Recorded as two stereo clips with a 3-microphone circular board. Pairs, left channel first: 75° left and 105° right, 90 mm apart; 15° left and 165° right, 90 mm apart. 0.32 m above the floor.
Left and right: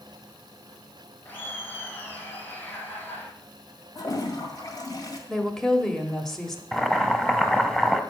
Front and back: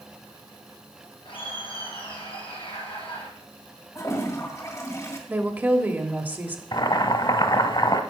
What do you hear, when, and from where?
1.2 s laughter: 10° left, 4 m
4.0 s a toilet flushing: 55° left, 1.8 m
5.3 s a woman speaking: 155° left, 1.2 m
6.7 s boiling: 10° right, 0.9 m